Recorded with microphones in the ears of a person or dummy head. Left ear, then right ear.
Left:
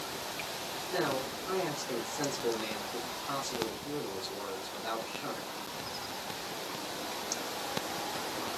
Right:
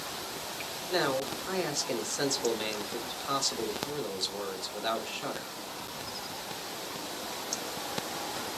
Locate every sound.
0.9 s a man speaking: 35° right (ahead or behind), 1.2 m